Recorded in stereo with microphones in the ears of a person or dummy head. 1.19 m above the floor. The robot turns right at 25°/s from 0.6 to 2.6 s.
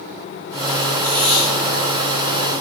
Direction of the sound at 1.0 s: 20° right (ahead or behind).